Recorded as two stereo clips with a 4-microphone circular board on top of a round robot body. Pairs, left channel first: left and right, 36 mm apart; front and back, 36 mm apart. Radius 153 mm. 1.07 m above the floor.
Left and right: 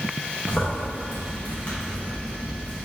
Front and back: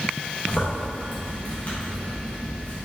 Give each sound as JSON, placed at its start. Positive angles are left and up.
{"t": 0.5, "sound": "a zipper", "azimuth_deg": 45, "distance_m": 1.2}